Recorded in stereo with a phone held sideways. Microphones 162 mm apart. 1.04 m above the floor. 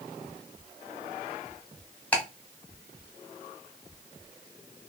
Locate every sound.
2.1 s ticking: 5° left (ahead or behind), 1.2 m